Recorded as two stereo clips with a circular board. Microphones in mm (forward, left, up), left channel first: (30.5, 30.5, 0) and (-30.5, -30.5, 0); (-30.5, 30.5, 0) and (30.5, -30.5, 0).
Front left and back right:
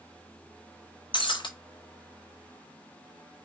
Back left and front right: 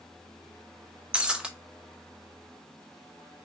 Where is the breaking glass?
35° left, 0.6 m.